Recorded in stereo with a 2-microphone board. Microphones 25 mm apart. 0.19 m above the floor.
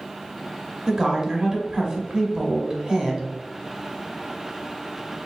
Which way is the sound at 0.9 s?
25° right (ahead or behind).